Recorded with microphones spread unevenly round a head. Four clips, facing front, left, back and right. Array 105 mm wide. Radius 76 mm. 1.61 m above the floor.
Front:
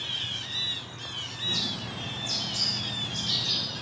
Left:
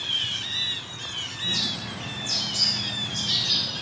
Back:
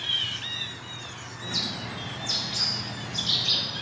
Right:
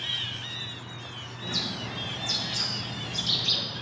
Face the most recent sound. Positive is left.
turn(degrees=-145)